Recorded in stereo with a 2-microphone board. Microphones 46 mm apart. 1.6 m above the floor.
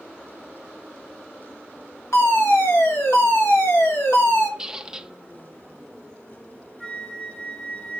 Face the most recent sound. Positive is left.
turn(degrees=15)  # may be behind; listen again after turning